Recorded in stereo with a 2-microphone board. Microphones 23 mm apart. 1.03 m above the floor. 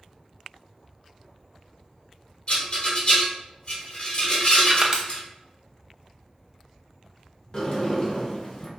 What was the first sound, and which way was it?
A rattle, 40° left (ahead or behind).